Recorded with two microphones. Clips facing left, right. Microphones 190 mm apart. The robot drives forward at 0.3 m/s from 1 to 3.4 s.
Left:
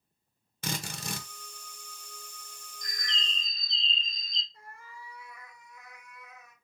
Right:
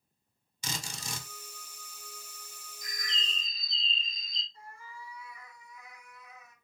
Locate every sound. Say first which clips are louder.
0.6 s a drill: left 5 dB; 60° left (ahead or behind), 0.8 m
2.8 s a bird: left 1 dB; 5° right (ahead or behind), 0.5 m
4.5 s a cat meowing: right 3 dB; 75° left (ahead or behind), 3.5 m